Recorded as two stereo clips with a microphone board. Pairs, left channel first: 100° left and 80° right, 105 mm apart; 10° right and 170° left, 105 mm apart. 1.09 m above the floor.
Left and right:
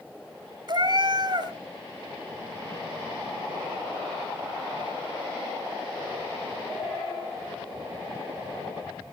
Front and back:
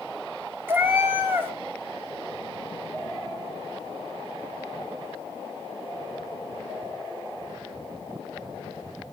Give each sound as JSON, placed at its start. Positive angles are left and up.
{"t": 0.7, "sound": "a cat meowing", "azimuth_deg": -120, "distance_m": 2.5}